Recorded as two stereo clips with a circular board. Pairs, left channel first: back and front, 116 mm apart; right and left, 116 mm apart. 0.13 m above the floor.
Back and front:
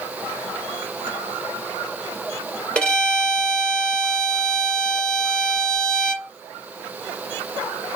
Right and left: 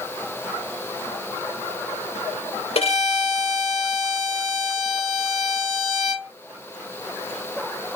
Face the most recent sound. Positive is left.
turn(degrees=-100)